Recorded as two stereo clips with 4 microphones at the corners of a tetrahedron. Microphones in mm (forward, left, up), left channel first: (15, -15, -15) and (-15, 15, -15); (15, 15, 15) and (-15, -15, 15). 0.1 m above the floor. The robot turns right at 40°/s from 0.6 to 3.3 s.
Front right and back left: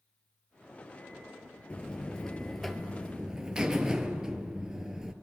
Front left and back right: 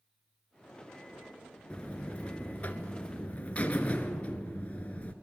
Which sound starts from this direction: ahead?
A buzzer, at 1.7 s.